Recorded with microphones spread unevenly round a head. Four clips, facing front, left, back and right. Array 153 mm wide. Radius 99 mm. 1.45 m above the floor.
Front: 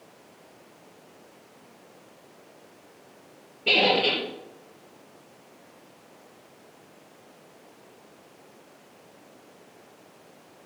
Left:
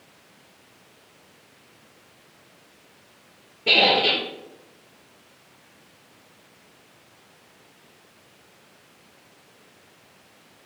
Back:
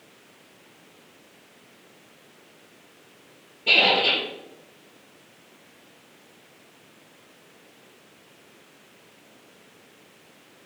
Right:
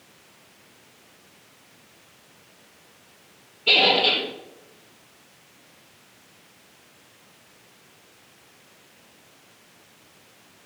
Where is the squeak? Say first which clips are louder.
Left 1 dB, even; 55° left, 2.5 m.